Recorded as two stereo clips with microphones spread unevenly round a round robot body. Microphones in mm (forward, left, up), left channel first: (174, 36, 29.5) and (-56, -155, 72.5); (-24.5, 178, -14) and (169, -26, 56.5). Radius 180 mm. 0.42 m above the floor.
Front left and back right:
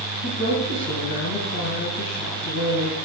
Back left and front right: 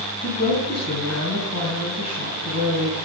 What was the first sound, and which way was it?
A woman speaking, 100° left.